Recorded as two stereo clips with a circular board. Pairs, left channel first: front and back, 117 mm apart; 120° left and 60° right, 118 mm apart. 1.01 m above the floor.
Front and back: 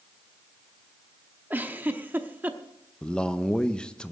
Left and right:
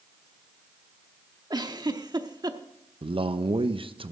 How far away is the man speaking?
About 0.6 m.